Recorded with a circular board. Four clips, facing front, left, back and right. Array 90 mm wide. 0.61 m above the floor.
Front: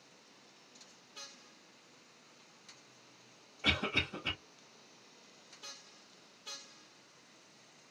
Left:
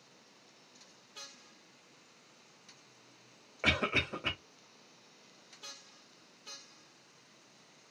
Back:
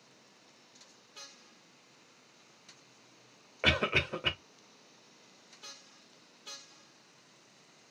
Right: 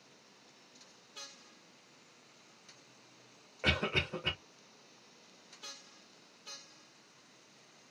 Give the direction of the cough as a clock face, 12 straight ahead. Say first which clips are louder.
Left 1 dB, back 5 dB; 7 o'clock.